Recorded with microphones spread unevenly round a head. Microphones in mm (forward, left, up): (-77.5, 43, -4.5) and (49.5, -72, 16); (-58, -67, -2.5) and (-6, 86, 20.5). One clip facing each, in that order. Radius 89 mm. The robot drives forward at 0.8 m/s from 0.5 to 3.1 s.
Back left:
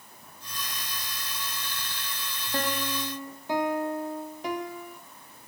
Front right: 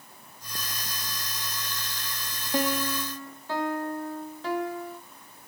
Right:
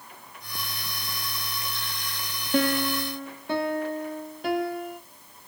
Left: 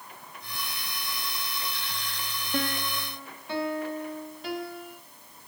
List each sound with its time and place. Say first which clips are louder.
2.5 s a piano: front right 4 dB, right 8 dB; 120° right, 0.5 m; by 5.0 s 150° right, 0.8 m